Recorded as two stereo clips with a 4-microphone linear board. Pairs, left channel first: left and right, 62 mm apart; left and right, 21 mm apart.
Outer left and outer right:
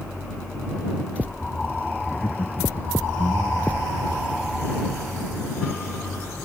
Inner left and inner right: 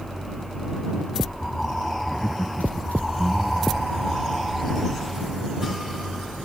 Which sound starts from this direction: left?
Laughter, at 2.1 s.